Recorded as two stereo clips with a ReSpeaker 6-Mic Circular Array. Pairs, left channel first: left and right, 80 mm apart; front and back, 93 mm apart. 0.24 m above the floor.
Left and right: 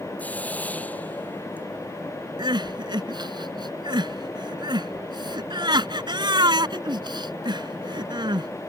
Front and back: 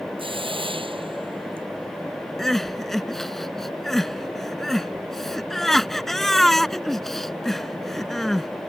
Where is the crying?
85° right.